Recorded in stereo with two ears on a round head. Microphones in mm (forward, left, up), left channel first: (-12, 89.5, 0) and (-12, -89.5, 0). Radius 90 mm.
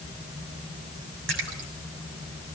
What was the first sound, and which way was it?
A splash, 60° right (ahead or behind).